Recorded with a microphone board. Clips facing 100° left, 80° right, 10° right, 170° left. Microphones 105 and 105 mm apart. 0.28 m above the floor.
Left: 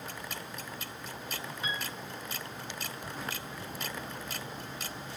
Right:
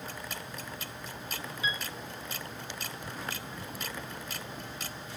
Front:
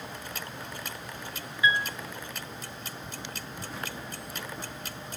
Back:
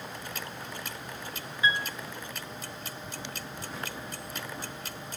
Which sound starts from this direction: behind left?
A piano, at 1.6 s.